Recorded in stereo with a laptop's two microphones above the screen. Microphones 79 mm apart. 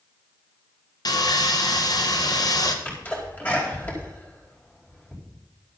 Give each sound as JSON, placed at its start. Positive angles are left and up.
{"t": 1.1, "sound": "sawing", "side_deg": 55, "distance_m": 1.0}
{"t": 2.9, "sound": "a sneeze", "side_deg": 20, "distance_m": 4.5}